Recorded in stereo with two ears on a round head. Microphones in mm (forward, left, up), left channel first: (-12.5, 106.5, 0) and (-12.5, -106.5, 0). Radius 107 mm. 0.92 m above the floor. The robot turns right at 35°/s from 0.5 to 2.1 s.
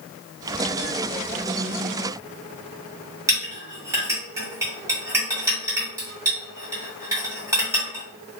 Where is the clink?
10° right (ahead or behind), 1.4 m.